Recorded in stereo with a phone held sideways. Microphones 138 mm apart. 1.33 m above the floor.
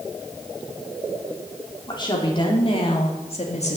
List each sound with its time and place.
1.9 s a woman speaking: 30° left (ahead or behind), 3 m; by 3.8 s 55° left (ahead or behind), 1.9 m